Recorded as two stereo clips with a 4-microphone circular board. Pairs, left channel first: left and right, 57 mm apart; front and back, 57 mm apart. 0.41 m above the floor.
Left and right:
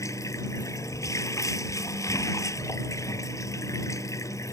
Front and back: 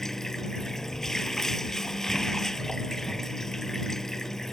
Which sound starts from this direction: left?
Running water, at 0.0 s.